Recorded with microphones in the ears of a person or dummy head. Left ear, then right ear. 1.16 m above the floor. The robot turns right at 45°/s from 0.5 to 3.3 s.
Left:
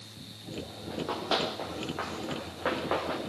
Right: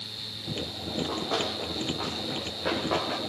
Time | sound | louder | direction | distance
0.9 | running footsteps | even | 60° left (ahead or behind) | 6 m